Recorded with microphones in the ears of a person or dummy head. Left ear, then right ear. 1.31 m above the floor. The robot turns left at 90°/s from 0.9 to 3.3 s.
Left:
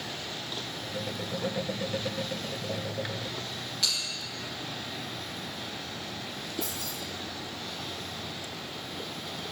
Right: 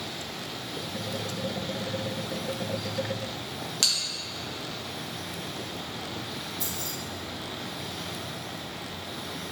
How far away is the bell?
About 1.0 m.